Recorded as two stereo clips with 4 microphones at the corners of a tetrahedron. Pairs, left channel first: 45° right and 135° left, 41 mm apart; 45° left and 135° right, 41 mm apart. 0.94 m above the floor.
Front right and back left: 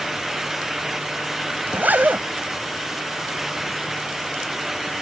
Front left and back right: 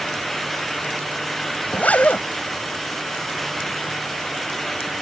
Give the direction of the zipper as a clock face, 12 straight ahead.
9 o'clock.